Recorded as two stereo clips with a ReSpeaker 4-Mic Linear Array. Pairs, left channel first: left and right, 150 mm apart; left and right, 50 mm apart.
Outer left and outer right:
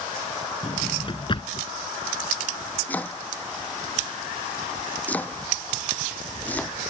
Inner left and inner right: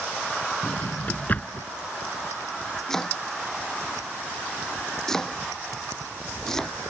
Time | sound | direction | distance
0.6 | a drawer | 35° left (ahead or behind) | ?
2.9 | chopping | 10° left (ahead or behind) | ?